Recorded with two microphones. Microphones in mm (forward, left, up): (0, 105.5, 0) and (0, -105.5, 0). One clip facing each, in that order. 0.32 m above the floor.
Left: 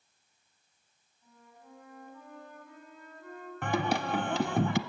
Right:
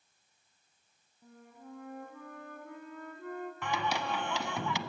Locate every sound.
1.2 s a flute: 65° right (ahead or behind), 3 m
3.6 s singing: 60° left (ahead or behind), 0.7 m